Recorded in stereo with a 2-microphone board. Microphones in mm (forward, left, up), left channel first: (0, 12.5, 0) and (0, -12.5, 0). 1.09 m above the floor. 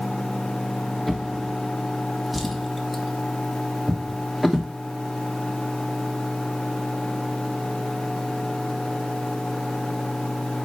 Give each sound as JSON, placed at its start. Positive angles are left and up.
{"t": 1.1, "sound": "a drawer", "side_deg": -5, "distance_m": 1.1}